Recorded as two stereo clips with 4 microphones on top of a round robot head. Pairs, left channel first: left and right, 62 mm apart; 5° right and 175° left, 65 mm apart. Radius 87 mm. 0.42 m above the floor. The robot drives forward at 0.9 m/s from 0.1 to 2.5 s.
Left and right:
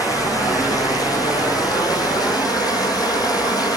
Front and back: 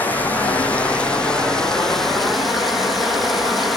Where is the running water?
60° left, 4.5 m; by 3.8 s 90° left, 4 m.